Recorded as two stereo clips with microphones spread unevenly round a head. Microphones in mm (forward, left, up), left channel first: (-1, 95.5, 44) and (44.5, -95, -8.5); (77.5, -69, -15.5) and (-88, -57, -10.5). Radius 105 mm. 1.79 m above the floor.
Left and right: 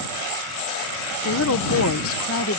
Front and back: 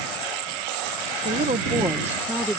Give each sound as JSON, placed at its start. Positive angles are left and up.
{"t": 1.2, "sound": "a woman speaking", "azimuth_deg": 125}